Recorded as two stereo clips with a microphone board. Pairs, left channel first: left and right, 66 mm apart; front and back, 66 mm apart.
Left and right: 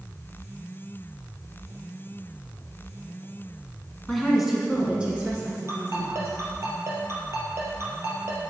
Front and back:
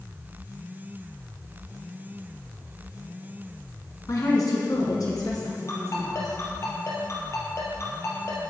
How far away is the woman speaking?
About 2 m.